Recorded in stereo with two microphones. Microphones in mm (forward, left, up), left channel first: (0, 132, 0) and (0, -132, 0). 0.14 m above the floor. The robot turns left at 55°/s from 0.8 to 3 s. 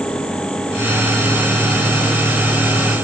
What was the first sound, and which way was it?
Only background noise.